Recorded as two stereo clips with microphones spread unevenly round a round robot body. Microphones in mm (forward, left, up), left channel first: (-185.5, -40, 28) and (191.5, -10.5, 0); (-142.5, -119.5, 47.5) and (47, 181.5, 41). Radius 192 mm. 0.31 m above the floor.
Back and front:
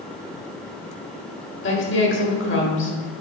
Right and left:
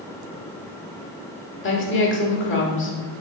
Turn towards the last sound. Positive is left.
turn(degrees=-140)